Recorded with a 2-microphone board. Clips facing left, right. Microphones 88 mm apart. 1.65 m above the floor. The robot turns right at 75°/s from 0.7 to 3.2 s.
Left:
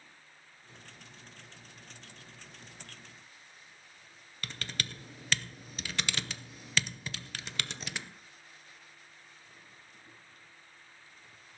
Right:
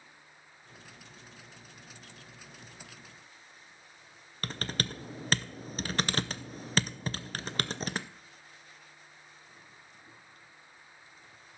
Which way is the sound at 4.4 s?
40° right (ahead or behind).